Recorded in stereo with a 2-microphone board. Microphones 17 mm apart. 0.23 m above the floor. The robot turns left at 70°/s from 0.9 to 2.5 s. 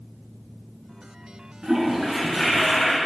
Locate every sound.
1.6 s a toilet flushing: 120° right, 2.5 m; by 3.0 s 175° left, 2.5 m